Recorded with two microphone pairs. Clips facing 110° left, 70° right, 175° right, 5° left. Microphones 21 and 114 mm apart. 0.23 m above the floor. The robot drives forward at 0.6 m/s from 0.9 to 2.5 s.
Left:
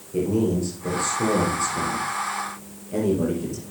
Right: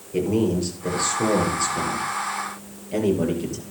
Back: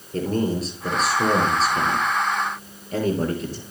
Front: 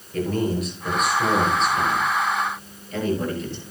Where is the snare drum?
I don't hear a snare drum.